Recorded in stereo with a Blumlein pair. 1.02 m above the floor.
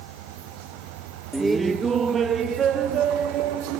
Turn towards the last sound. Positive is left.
turn(degrees=-30)